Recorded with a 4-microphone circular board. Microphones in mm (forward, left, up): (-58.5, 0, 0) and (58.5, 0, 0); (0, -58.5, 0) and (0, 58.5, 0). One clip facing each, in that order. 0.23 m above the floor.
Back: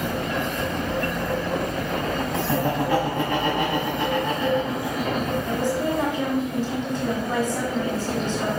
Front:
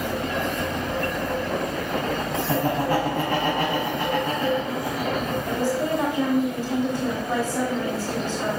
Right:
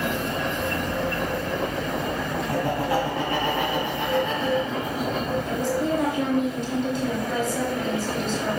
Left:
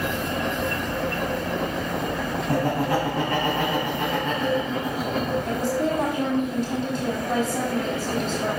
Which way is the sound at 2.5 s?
45° left.